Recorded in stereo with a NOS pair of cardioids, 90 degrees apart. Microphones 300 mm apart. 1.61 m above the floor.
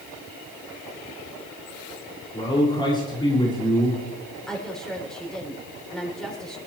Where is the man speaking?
15° left, 5.5 m.